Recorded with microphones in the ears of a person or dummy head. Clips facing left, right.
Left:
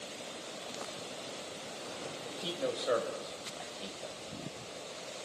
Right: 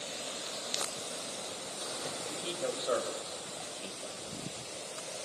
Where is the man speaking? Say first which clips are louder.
Left 1 dB; 15° left (ahead or behind), 5 m.